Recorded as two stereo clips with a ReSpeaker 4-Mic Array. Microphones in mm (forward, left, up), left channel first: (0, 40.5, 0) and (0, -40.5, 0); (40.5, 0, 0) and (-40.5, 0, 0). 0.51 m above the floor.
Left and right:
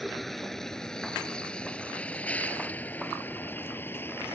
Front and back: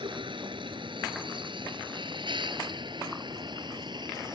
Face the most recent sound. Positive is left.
turn(degrees=155)